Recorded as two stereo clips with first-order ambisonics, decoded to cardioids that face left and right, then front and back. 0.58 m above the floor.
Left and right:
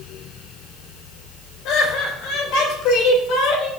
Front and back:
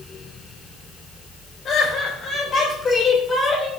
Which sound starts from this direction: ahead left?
Laughter, at 1.6 s.